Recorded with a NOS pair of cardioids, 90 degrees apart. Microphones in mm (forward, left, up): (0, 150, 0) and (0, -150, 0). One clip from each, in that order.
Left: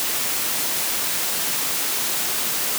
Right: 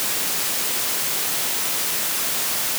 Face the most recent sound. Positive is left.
No sound to turn to.